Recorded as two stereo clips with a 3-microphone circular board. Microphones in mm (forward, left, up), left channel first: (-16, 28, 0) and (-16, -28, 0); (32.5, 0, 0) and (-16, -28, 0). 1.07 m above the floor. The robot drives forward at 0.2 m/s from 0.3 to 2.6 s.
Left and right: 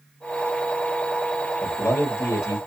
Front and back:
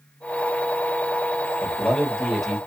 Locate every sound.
1.6 s a man speaking: 110° left, 1.0 m; by 2.6 s 120° left, 1.1 m